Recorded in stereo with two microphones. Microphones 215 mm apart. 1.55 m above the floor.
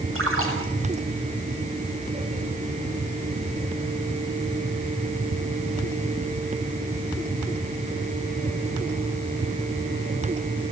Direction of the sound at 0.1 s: 85° right.